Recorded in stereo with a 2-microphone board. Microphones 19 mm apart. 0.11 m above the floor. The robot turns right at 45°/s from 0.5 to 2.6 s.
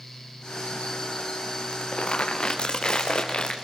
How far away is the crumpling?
About 3.5 m.